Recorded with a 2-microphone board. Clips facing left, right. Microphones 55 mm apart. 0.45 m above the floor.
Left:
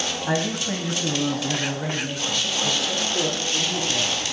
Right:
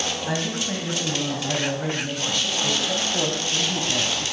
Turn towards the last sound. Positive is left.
turn(degrees=-40)  # may be behind; listen again after turning